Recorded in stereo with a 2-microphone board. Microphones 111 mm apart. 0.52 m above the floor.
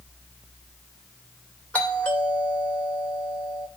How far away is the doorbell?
About 2.5 m.